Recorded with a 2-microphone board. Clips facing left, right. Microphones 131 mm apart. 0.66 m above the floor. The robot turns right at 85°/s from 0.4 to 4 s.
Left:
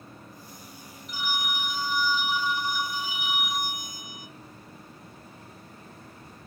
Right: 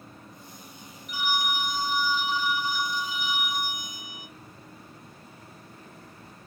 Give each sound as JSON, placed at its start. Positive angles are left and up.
{"t": 1.1, "sound": "a phone ringing", "azimuth_deg": -95, "distance_m": 1.7}